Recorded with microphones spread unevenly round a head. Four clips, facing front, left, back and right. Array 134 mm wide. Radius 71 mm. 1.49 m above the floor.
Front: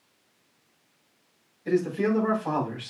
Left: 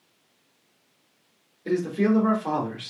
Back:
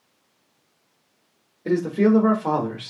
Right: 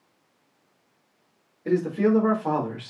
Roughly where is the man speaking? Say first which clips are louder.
Right 1 dB, back 5 dB; behind.